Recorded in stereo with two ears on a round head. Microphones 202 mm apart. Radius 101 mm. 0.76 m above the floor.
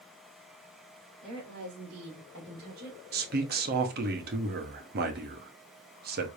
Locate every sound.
1.2 s a woman speaking: 75° right (ahead or behind), 2.5 m; by 3.0 s 45° right (ahead or behind), 2.5 m
3.1 s a man speaking: 45° right (ahead or behind), 0.9 m